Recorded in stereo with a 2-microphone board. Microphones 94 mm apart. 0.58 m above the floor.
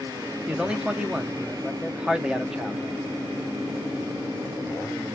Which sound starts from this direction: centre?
A man speaking, at 0.5 s.